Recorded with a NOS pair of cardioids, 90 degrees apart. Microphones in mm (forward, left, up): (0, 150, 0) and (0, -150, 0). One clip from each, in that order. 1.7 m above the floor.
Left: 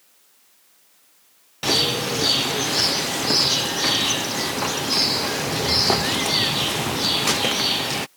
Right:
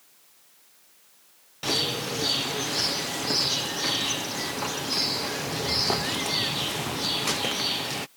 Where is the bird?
25° left.